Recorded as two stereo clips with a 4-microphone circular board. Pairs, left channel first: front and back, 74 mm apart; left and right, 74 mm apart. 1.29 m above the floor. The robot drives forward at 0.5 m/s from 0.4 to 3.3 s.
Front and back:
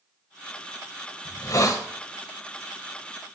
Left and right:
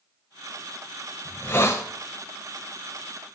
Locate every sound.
1.2 s a hiss: 25° left, 0.8 m; by 1.9 s 40° left, 0.6 m